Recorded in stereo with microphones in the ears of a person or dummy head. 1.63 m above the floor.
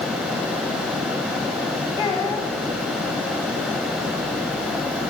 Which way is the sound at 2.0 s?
20° left (ahead or behind).